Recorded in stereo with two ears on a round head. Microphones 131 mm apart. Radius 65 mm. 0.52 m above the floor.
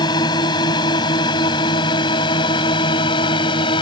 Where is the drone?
30° left (ahead or behind).